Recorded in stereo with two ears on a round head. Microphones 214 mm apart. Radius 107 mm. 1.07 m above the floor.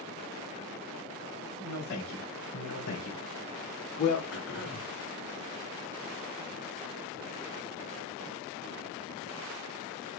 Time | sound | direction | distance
1.6 | a man speaking | 85° left | 3.5 m
4.3 | throat clearing | 70° left (ahead or behind) | 3.5 m